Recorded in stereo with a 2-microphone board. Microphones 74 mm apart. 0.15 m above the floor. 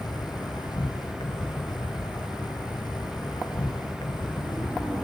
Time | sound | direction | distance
0.0 | an insect | 70° left (ahead or behind) | 1.2 m